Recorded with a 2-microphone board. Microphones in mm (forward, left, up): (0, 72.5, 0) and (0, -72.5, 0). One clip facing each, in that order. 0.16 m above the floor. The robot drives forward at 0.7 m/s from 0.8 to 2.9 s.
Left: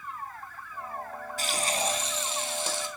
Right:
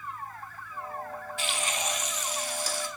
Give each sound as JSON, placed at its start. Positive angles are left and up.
{"t": 1.4, "sound": "frying", "side_deg": 40, "distance_m": 1.1}